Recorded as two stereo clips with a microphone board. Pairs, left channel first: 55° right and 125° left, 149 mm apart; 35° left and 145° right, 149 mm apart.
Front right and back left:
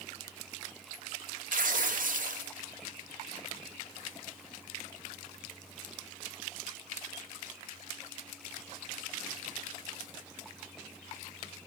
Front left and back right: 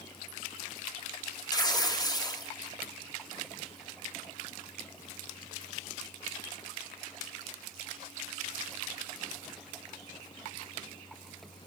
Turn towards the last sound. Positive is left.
turn(degrees=100)